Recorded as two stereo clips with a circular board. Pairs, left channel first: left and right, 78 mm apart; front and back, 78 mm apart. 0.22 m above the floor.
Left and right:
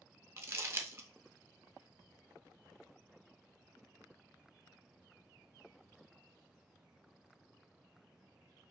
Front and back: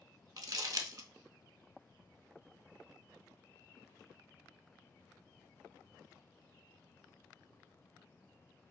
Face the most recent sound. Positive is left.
turn(degrees=-140)